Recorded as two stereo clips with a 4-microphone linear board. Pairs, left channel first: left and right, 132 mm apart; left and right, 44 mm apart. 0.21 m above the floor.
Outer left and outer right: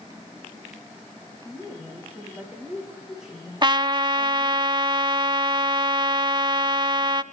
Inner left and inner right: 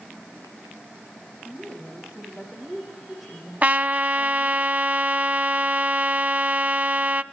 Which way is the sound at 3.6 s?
35° right (ahead or behind).